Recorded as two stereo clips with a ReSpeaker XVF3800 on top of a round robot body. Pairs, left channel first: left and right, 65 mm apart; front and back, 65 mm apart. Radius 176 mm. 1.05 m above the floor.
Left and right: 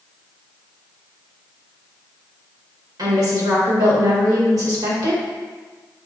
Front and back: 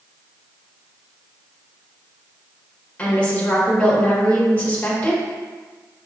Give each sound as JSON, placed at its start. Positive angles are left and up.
{"t": 3.0, "sound": "a woman speaking", "azimuth_deg": -70, "distance_m": 1.7}